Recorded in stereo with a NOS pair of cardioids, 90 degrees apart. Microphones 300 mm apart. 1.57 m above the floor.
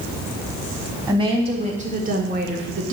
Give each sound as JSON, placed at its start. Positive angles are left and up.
{"t": 1.1, "sound": "a woman speaking", "azimuth_deg": -15, "distance_m": 3.0}